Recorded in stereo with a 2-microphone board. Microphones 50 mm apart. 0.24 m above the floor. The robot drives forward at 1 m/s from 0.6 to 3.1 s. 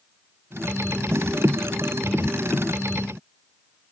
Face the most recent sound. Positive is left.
No sound to turn to.